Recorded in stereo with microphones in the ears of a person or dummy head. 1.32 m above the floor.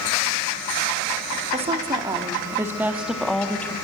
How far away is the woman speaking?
About 3 m.